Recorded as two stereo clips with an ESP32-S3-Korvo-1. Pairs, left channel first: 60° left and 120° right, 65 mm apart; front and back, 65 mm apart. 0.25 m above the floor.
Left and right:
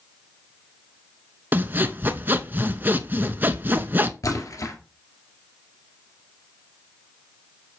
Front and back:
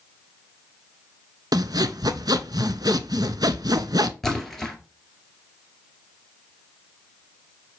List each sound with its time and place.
1.5 s sawing: straight behind, 0.6 m
4.2 s a splash: 85° left, 1.9 m